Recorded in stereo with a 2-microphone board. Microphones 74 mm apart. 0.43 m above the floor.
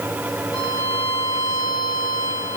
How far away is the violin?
About 3 m.